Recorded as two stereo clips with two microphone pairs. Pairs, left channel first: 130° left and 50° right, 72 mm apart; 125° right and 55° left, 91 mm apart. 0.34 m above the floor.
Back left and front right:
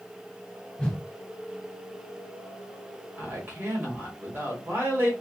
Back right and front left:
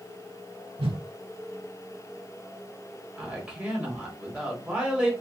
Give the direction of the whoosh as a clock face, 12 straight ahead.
10 o'clock.